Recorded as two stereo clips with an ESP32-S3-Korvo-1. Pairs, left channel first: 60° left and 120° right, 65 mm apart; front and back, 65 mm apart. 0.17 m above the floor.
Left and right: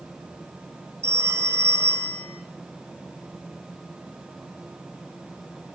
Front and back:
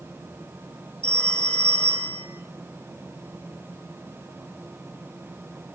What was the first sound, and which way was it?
A phone ringing, 70° right.